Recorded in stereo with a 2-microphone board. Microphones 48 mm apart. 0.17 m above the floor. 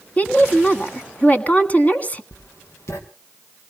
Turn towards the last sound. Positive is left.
turn(degrees=75)  # may be behind; listen again after turning